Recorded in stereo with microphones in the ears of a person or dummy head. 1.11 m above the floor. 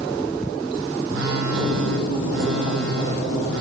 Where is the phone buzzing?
65° right (ahead or behind), 2.5 m.